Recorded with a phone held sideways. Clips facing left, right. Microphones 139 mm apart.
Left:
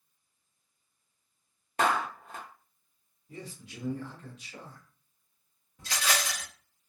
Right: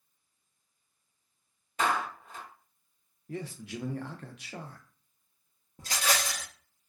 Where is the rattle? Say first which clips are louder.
Right 1 dB; 45° right (ahead or behind), 0.8 m.